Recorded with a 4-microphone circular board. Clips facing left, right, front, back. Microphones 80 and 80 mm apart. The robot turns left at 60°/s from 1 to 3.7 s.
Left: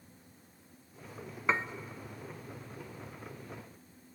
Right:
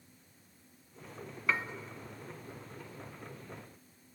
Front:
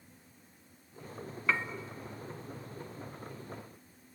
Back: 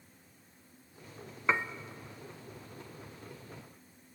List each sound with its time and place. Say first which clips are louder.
1.5 s dishes clattering: left 2 dB, back 2 dB; 130° left, 0.6 m; by 1.6 s 120° left, 0.6 m